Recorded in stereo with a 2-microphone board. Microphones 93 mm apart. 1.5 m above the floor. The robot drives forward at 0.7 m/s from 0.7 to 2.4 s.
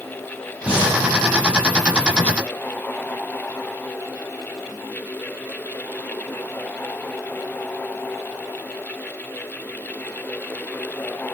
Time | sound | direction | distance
0.7 | breathing | 15° right (ahead or behind) | 2.5 m